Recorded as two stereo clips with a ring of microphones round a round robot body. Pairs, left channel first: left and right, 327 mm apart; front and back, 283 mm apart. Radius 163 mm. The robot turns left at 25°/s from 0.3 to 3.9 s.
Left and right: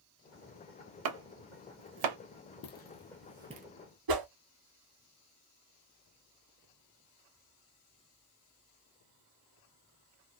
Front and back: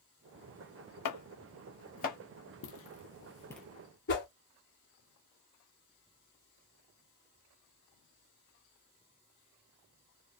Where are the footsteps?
35° left, 0.9 m; by 3.7 s 110° right, 0.5 m.